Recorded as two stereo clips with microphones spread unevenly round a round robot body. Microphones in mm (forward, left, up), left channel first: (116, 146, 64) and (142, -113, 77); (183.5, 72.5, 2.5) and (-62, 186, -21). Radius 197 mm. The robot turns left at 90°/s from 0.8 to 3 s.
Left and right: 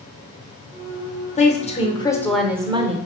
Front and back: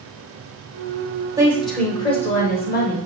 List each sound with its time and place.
1.4 s a woman speaking: 100° left, 0.9 m; by 3.0 s 40° right, 0.9 m